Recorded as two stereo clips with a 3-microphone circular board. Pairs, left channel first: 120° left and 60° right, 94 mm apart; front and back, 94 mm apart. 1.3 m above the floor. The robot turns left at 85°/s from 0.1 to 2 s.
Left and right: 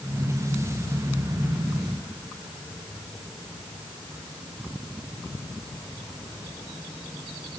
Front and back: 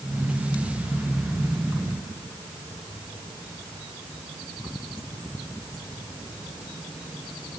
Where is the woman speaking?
I don't hear a woman speaking.